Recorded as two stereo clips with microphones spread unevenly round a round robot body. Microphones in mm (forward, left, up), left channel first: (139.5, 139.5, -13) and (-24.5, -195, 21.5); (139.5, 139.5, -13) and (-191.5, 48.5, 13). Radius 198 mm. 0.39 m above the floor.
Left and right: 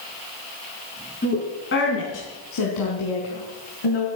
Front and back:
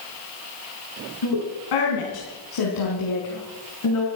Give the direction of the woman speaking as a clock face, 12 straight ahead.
12 o'clock.